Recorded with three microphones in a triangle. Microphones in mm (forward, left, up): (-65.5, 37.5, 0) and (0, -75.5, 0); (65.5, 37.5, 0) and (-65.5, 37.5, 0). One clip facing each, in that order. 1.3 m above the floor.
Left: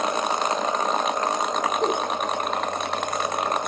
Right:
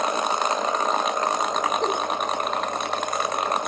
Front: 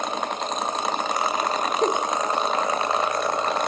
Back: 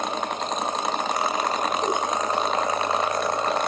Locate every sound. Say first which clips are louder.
1.8 s a giggle: left 1 dB, front 2 dB; 35° left, 2.5 m